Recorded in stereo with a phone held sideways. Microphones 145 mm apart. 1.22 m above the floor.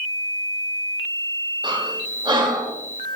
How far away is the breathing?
About 1.8 m.